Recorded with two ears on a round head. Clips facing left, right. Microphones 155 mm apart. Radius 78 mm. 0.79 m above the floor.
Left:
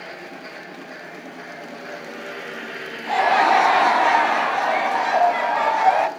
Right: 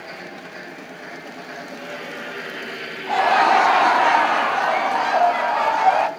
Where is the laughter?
5° left (ahead or behind), 0.8 m.